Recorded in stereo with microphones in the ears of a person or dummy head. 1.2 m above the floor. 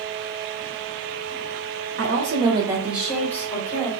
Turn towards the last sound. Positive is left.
turn(degrees=20)  # may be behind; listen again after turning